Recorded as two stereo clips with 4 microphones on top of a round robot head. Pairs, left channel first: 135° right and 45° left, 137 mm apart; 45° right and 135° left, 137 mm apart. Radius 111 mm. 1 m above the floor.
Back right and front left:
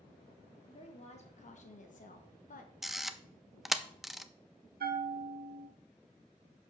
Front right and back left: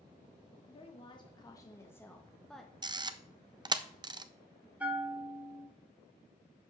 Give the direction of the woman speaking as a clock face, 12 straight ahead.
3 o'clock.